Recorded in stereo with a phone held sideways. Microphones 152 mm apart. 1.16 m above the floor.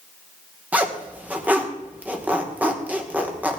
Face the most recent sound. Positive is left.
turn(degrees=-10)  # may be behind; listen again after turning